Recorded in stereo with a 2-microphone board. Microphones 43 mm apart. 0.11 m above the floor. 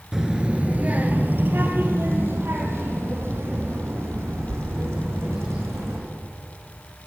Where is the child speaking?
10° right (ahead or behind), 1.3 m; by 6.0 s 80° right, 6 m.